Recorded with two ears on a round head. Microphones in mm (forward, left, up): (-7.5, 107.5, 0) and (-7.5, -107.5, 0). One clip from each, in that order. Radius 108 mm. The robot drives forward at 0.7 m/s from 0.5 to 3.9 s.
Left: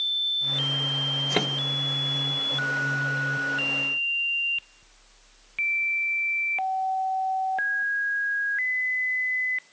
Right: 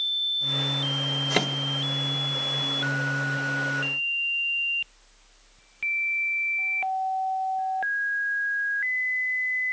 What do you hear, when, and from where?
1.3 s a microwave: 20° right (ahead or behind)